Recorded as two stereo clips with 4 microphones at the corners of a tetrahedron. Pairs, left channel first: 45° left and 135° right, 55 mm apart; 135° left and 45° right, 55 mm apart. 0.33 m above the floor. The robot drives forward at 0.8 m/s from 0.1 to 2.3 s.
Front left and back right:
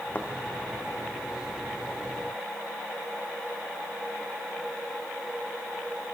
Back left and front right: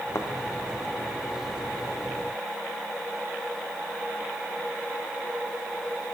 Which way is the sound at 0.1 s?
105° left.